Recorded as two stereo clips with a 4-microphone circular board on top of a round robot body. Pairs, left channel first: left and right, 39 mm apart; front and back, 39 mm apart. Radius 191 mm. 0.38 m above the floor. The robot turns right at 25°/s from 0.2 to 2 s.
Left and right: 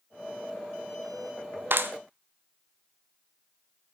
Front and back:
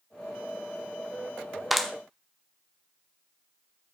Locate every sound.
1.7 s a clap: 95° right, 1.4 m; by 1.9 s 85° right, 1.4 m